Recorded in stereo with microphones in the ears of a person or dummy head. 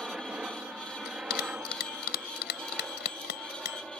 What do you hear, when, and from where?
0.0 s a helicopter: centre (ahead or behind)
1.1 s a bell: 60° left (ahead or behind)